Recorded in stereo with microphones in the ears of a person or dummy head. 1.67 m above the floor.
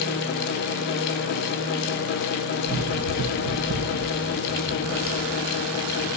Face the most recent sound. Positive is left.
turn(degrees=-40)  # may be behind; listen again after turning